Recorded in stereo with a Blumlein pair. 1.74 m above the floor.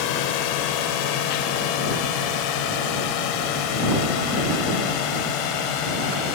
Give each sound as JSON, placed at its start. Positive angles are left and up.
{"t": 0.0, "sound": "a drone", "azimuth_deg": 45}